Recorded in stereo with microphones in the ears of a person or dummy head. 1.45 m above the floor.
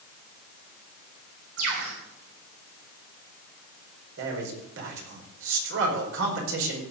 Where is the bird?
85° right, 5 m.